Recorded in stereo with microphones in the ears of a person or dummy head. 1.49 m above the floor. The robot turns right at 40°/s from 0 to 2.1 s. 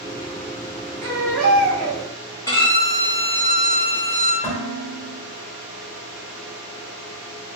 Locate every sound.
1.0 s a baby crying: 125° right, 1.0 m; by 2.0 s 85° right, 1.0 m
2.5 s a violin: 15° left (ahead or behind), 0.9 m
4.4 s dishes clattering: 5° left (ahead or behind), 1.4 m